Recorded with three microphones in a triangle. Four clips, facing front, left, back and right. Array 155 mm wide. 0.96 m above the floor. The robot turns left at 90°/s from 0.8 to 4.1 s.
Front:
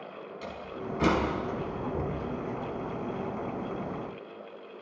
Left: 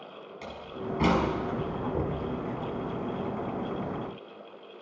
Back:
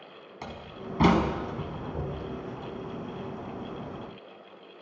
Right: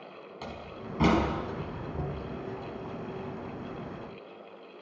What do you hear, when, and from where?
0.4 s a door slam: 160° right, 5 m; by 1.8 s 110° left, 5 m
1.9 s knocking: 85° left, 3 m; by 2.3 s 55° left, 3 m